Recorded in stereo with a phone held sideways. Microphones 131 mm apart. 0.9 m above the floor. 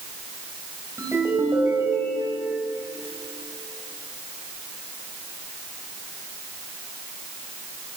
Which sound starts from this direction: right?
A ringtone, at 1.0 s.